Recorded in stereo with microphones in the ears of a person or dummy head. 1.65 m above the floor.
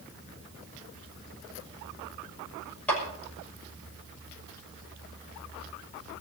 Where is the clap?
10° left (ahead or behind), 6 m.